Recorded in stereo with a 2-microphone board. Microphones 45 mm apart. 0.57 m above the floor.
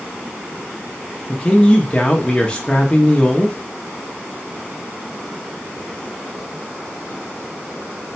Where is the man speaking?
20° left (ahead or behind), 0.6 m.